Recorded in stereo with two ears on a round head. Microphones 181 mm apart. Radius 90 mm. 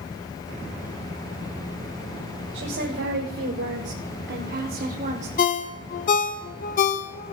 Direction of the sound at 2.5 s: 60° right (ahead or behind).